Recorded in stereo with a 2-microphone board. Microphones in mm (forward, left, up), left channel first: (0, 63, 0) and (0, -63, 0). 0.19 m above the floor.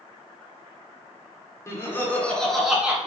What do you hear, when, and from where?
1.7 s laughter: 25° left (ahead or behind), 2.5 m; by 3.0 s 10° right (ahead or behind), 2.0 m